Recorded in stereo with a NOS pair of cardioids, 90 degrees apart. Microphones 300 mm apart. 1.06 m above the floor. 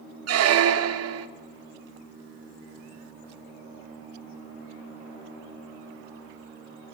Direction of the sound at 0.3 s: 55° right.